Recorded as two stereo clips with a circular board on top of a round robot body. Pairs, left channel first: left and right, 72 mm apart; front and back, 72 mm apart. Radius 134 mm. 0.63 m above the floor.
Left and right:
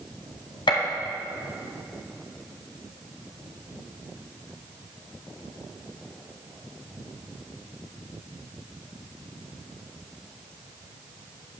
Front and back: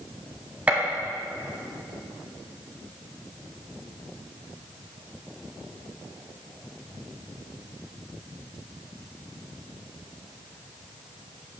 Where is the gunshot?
105° left, 1.3 m.